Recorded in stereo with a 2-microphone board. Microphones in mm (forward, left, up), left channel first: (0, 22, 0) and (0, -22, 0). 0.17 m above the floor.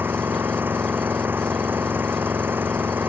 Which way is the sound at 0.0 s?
55° right (ahead or behind).